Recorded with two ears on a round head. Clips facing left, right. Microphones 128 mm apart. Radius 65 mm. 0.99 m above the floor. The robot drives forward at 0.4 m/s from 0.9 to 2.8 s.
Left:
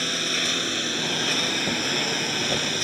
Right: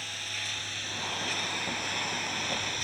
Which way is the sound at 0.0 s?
75° left (ahead or behind).